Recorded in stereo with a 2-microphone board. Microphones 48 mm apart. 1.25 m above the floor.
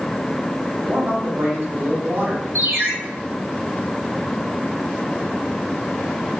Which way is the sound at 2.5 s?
60° right (ahead or behind).